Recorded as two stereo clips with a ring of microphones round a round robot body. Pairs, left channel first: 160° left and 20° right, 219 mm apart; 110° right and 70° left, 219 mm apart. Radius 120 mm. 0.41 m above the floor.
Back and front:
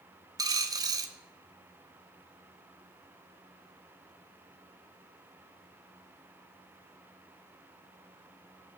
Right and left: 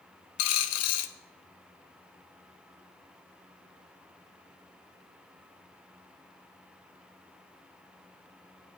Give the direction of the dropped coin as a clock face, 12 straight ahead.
3 o'clock.